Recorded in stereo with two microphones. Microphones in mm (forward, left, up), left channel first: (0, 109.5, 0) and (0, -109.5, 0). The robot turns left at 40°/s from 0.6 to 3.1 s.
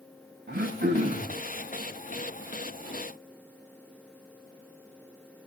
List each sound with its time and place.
0.5 s throat clearing: 125° right, 6.5 m; by 1.4 s 155° right, 6.5 m